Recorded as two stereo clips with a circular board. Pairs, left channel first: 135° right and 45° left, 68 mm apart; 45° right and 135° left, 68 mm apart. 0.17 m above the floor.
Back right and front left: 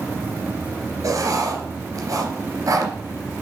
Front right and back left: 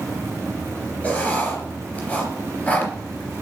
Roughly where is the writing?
Ahead.